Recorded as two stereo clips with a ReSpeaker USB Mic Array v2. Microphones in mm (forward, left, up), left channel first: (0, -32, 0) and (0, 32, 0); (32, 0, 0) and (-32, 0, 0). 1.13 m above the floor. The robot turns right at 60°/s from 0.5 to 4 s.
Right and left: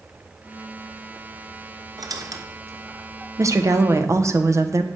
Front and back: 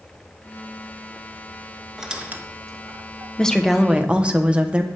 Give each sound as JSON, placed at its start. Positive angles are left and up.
{"t": 2.0, "sound": "a squeak", "azimuth_deg": 95, "distance_m": 0.6}
{"t": 3.4, "sound": "a woman speaking", "azimuth_deg": 75, "distance_m": 0.6}